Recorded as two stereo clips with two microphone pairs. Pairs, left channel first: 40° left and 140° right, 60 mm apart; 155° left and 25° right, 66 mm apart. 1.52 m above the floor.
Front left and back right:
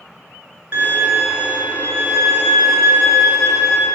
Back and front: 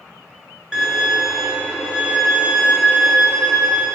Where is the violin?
110° right, 1.8 m.